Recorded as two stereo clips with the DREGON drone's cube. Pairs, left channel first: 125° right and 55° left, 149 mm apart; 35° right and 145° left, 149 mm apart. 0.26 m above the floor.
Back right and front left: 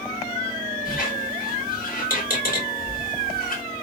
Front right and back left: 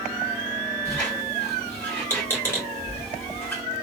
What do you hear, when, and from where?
0.8 s a squeak: 110° right, 1.8 m